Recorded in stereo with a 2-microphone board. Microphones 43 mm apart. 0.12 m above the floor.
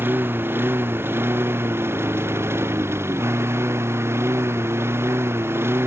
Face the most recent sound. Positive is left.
turn(degrees=-70)  # may be behind; listen again after turning